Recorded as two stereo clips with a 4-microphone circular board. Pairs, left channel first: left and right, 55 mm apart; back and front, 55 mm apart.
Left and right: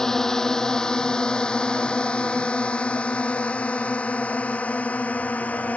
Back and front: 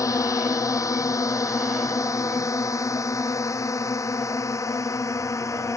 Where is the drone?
170° left; by 5.8 s 155° left.